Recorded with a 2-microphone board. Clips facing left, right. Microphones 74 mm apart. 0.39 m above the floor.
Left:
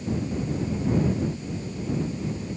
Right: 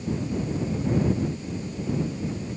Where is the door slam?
I don't hear a door slam.